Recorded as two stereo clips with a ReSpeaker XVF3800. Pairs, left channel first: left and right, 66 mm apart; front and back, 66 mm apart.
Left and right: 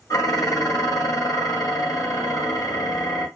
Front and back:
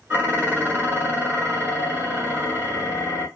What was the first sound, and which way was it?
Dishes clattering, 120° left.